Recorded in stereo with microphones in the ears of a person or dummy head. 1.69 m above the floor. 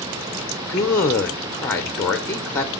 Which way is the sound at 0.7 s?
15° left (ahead or behind).